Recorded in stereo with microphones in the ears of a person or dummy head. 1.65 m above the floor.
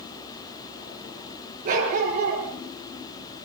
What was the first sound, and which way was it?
A dog barking, 45° right (ahead or behind).